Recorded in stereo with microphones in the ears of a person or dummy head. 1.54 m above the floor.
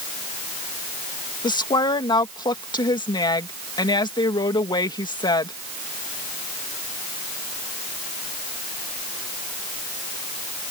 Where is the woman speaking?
20° left (ahead or behind).